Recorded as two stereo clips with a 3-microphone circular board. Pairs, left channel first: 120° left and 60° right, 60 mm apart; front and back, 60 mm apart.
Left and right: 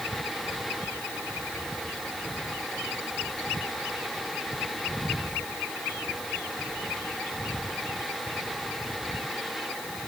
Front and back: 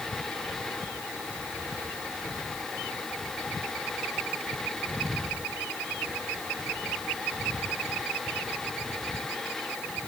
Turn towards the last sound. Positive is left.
No sound to turn to.